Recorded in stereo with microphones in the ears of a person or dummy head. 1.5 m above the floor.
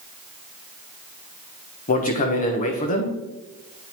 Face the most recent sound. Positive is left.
turn(degrees=45)  # may be behind; listen again after turning